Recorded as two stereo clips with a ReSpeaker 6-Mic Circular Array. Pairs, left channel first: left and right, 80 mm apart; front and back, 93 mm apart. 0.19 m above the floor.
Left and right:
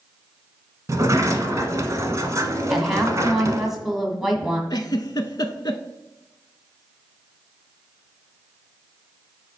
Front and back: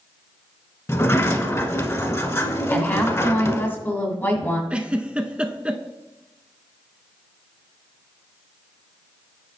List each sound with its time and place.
0.9 s a sliding door: 50° right, 1.0 m
2.7 s a woman speaking: 10° right, 1.6 m
4.7 s a giggle: 105° left, 0.7 m